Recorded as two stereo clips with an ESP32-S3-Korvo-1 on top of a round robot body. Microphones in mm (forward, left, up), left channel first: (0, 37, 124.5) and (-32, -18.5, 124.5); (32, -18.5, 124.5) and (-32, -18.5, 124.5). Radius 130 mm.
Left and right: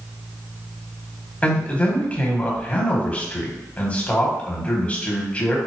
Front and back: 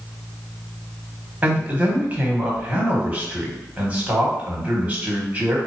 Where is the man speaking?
120° left, 1.5 m.